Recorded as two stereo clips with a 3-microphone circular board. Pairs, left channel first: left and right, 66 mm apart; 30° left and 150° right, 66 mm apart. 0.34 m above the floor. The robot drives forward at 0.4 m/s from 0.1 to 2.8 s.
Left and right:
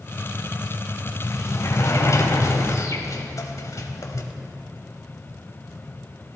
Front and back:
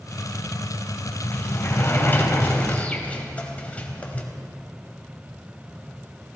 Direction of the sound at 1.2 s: 65° left.